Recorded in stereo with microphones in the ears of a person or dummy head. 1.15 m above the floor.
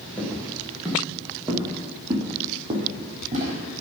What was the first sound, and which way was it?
Footsteps, 5° left (ahead or behind).